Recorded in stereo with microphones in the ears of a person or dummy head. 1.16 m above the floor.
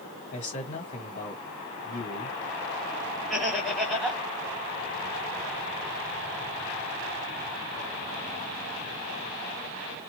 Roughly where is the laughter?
Centre.